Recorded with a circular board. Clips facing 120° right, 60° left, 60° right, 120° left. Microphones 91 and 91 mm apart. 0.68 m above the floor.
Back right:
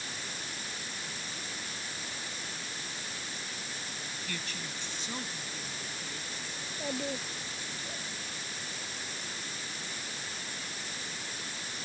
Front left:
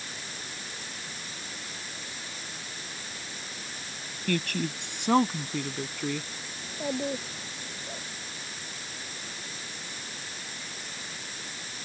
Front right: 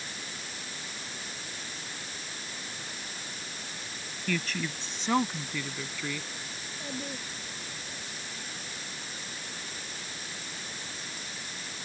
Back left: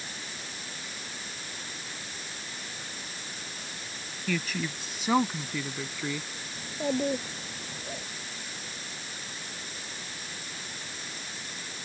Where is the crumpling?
No crumpling in this recording.